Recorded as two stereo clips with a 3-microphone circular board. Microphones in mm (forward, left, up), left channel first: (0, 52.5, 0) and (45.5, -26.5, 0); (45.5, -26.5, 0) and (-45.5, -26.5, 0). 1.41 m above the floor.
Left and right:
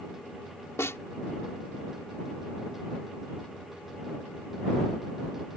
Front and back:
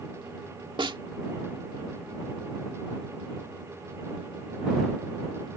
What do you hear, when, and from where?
0.8 s a snare drum: 175° left